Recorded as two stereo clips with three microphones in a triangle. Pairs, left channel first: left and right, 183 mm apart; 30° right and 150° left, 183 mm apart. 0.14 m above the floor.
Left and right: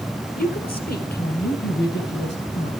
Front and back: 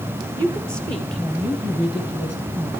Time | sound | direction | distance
0.4 | a woman speaking | 80° left | 2.5 m